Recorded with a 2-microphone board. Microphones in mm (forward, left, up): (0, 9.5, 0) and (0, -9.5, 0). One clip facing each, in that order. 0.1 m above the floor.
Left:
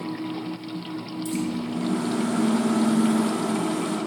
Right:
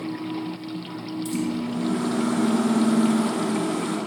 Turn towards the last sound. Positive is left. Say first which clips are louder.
# right 1 dB
turn(degrees=-15)  # may be behind; listen again after turning